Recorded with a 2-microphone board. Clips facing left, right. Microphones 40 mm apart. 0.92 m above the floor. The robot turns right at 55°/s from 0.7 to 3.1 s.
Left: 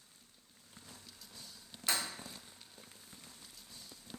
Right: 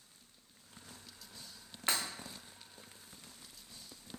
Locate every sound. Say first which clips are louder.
1.9 s breaking glass: right 1 dB; 40° right (ahead or behind), 0.7 m; by 2.0 s 50° right (ahead or behind), 0.7 m